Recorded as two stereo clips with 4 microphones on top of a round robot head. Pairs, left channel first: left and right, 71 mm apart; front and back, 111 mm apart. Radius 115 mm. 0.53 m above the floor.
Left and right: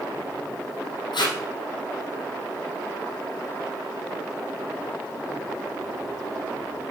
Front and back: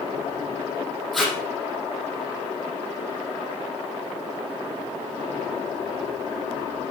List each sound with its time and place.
1.1 s tape being pulled: 90° left, 4.5 m